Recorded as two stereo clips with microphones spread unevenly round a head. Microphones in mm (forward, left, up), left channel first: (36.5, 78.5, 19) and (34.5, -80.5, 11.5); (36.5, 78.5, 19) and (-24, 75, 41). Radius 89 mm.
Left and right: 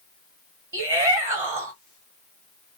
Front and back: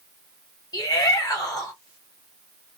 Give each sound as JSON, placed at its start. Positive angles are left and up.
{"t": 0.7, "sound": "a shout", "azimuth_deg": -25, "distance_m": 1.1}